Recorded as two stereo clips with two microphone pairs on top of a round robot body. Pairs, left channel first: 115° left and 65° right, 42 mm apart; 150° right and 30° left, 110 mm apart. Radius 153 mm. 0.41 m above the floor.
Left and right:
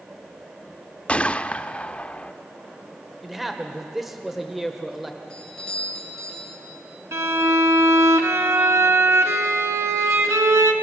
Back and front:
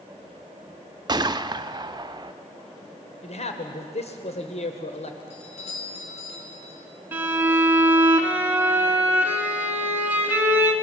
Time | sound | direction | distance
1.1 | a gunshot | 65° left | 1.0 m
3.2 | a man speaking | 150° right | 1.9 m
5.3 | a doorbell | 175° right | 5 m
7.1 | a violin | 45° right | 1.2 m